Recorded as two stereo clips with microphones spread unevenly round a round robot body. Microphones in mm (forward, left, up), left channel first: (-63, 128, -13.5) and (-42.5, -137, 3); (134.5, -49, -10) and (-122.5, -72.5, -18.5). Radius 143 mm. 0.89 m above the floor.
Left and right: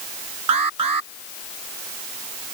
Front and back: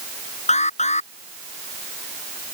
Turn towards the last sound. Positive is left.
turn(degrees=-60)